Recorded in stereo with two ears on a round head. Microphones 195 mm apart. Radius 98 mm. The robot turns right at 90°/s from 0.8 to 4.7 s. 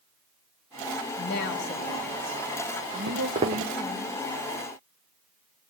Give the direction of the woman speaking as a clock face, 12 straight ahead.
9 o'clock.